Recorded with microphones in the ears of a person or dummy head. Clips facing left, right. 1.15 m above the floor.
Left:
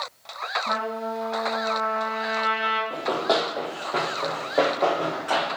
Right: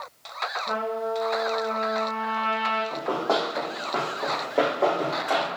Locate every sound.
0.7 s a trumpet: 60° left (ahead or behind), 1.9 m
2.9 s running footsteps: 35° left (ahead or behind), 1.6 m; by 5.5 s centre (ahead or behind), 4 m